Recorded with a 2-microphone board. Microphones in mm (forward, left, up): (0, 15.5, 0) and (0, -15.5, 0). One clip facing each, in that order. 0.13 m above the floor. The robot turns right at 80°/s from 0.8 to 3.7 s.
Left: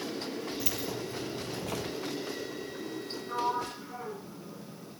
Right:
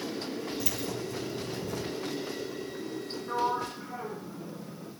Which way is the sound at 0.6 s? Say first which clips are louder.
Right 1 dB; 5° left.